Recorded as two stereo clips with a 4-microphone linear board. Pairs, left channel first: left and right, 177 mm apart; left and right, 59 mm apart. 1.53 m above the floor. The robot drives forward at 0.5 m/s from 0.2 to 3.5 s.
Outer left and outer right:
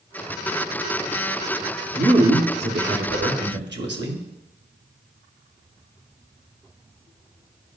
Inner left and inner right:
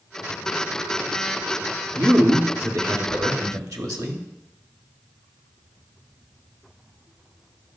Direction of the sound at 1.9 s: 60° right (ahead or behind).